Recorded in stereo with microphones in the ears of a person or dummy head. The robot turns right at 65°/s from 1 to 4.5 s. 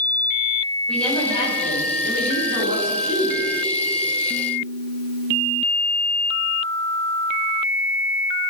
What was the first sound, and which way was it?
A woman speaking, 5° left.